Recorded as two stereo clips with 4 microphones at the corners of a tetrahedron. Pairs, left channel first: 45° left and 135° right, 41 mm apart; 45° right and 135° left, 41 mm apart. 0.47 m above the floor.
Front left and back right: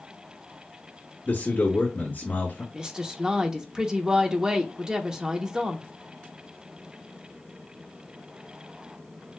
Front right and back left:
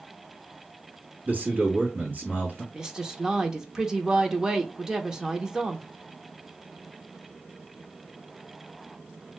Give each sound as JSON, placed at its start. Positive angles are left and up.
{"t": 1.2, "sound": "a man speaking", "azimuth_deg": 90, "distance_m": 2.5}
{"t": 2.7, "sound": "a woman speaking", "azimuth_deg": -175, "distance_m": 0.8}